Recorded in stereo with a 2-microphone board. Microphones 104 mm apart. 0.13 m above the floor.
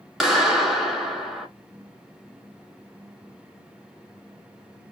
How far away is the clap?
About 1.1 m.